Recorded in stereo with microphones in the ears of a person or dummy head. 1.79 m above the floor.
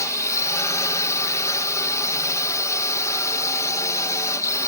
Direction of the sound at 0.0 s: 20° left (ahead or behind).